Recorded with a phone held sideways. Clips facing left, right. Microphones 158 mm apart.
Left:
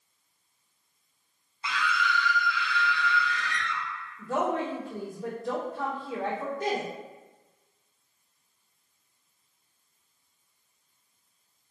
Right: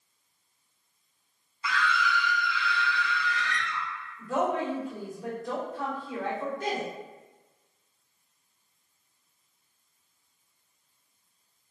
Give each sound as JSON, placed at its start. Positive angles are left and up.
{"t": 1.6, "sound": "a scream", "side_deg": 25, "distance_m": 0.6}
{"t": 4.2, "sound": "a woman speaking", "side_deg": 35, "distance_m": 1.9}